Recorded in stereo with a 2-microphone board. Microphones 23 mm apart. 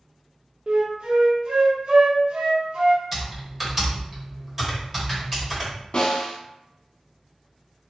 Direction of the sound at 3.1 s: 10° right (ahead or behind).